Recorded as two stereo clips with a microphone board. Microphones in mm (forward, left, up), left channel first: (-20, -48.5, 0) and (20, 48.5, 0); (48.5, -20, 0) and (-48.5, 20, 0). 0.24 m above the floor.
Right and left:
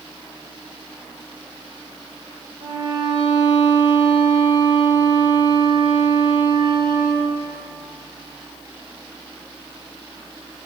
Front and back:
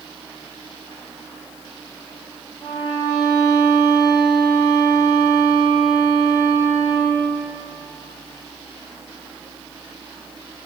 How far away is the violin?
About 2.5 m.